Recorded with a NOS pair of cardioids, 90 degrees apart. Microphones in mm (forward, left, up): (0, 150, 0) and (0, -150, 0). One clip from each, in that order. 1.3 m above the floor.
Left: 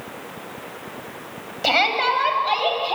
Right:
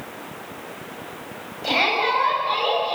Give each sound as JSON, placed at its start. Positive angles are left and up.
{"t": 1.6, "sound": "a shout", "azimuth_deg": 70, "distance_m": 7.5}